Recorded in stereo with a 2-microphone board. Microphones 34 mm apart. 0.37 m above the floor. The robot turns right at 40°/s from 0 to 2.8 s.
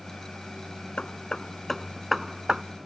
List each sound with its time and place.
1.0 s hammering: 40° left (ahead or behind); by 2.6 s 25° right (ahead or behind)